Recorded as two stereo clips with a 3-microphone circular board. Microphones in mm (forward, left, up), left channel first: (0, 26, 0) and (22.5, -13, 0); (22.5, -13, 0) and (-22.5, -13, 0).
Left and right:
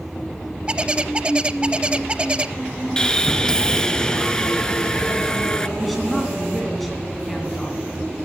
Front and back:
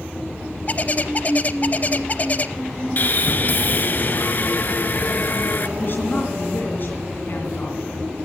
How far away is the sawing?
About 0.6 m.